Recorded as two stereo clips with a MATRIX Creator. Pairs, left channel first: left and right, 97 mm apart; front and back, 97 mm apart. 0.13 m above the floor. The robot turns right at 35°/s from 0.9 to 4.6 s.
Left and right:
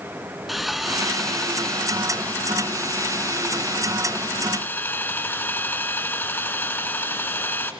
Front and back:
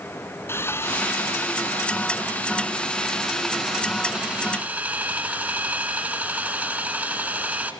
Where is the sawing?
5° right, 1.2 m; by 7.7 s 125° left, 1.2 m.